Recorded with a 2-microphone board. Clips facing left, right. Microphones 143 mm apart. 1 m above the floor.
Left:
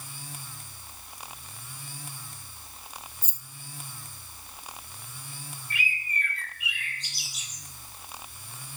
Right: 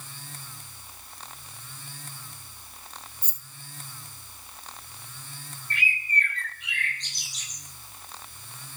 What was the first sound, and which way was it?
Keys jangling, 65° right (ahead or behind).